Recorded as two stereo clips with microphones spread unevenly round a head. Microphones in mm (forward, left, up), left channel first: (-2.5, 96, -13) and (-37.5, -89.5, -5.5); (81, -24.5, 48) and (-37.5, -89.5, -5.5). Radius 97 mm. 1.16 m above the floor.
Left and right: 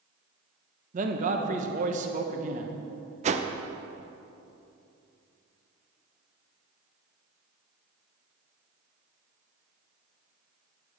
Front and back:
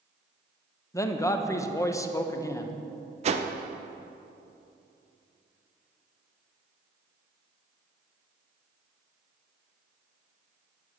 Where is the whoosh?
155° right, 0.5 m.